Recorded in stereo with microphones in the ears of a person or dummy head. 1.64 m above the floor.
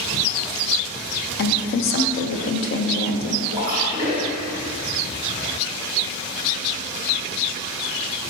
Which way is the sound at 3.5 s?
30° right (ahead or behind).